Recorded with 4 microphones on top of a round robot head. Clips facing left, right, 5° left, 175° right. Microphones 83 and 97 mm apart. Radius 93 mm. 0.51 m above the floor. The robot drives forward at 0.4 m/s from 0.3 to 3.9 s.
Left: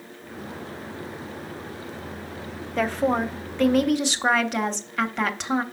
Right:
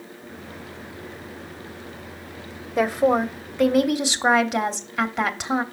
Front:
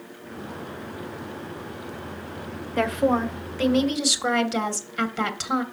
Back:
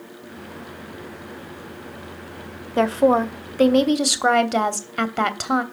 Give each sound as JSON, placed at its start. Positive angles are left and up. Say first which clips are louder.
{"t": 2.8, "sound": "a woman speaking", "louder": "right 4 dB, back 5 dB", "azimuth_deg": -155, "distance_m": 0.7}